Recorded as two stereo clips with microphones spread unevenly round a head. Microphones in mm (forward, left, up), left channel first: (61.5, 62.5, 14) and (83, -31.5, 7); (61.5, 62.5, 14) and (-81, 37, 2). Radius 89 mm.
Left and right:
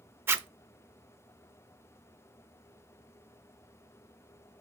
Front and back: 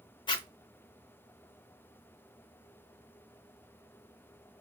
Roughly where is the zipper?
Ahead.